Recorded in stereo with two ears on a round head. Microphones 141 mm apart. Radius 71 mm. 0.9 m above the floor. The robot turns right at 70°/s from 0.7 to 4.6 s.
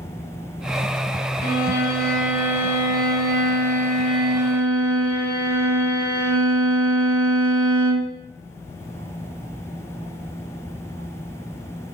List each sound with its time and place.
1.4 s a violin: 115° left, 1.3 m; by 8.1 s 25° right, 1.3 m